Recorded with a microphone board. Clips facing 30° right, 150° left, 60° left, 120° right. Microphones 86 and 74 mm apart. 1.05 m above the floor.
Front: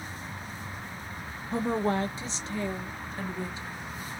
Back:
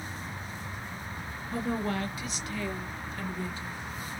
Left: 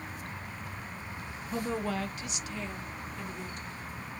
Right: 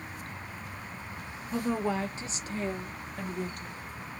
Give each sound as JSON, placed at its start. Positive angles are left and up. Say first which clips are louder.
{"t": 1.5, "sound": "a woman speaking", "louder": "front 4 dB, right 3 dB", "azimuth_deg": -30, "distance_m": 0.7}